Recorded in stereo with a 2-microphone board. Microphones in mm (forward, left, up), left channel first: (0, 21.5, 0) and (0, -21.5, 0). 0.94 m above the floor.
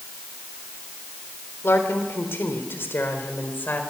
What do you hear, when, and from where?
1.6 s a woman speaking: 70° left (ahead or behind), 4 m; by 3.8 s 50° left (ahead or behind), 4.5 m